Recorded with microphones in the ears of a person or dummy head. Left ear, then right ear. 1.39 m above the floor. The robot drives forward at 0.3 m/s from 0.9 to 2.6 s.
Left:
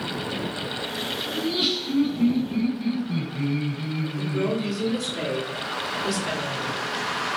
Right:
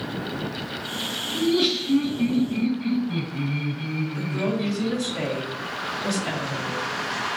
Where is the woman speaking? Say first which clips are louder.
Left 2 dB; 30° right (ahead or behind), 0.8 m.